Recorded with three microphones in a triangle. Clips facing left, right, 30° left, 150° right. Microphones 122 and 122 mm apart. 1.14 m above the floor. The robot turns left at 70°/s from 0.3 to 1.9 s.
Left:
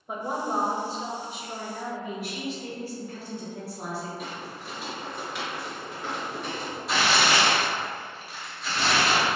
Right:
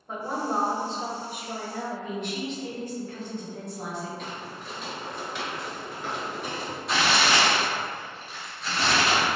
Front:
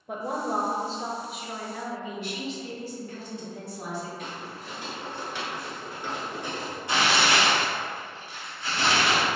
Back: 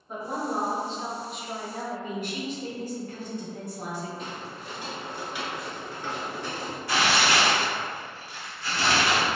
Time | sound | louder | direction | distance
0.1 | a woman speaking | even, front 1 dB | 15° left | 0.5 m
2.0 | a woman speaking | right 1 dB, back 1 dB | 170° left | 1.2 m
4.2 | footsteps | even, back 1 dB | 170° left | 1.4 m
6.9 | tearing paper | even, even | 5° left | 0.7 m